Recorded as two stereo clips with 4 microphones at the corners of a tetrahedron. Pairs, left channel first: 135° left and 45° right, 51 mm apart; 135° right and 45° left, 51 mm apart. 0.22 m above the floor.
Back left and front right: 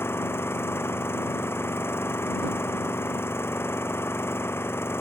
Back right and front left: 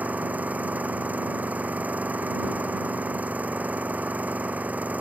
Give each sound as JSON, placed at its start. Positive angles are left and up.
{"t": 0.0, "sound": "an engine running", "azimuth_deg": 100}